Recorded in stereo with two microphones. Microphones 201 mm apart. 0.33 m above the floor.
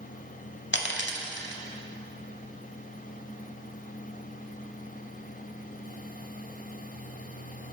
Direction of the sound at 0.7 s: 65° left (ahead or behind).